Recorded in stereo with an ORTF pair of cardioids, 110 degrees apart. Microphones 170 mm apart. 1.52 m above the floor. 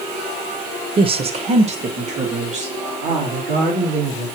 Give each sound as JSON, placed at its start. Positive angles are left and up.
{"t": 1.0, "sound": "a woman speaking", "azimuth_deg": -30, "distance_m": 0.8}